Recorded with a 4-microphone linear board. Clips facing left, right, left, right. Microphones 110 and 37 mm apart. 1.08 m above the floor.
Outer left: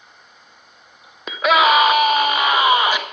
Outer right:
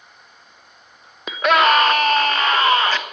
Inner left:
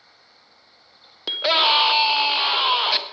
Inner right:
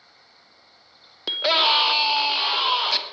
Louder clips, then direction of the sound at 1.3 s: Outer left 1 dB, inner left 1 dB; centre (ahead or behind).